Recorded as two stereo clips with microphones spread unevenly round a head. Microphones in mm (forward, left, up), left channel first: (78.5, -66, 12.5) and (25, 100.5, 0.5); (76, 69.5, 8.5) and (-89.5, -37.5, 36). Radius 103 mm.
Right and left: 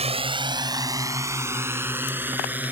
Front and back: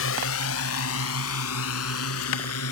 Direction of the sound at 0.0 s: 55° left.